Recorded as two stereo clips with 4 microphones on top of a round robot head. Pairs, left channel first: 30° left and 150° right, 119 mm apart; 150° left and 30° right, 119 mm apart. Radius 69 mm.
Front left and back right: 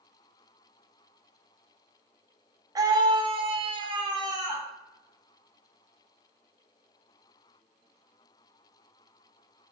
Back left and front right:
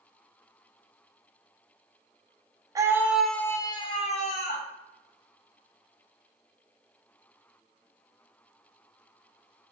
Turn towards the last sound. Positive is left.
turn(degrees=155)